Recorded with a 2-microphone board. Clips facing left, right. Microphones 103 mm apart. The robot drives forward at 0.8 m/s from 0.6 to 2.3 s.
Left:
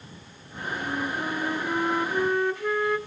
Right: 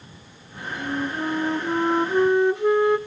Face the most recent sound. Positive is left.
turn(degrees=-20)  # may be behind; listen again after turning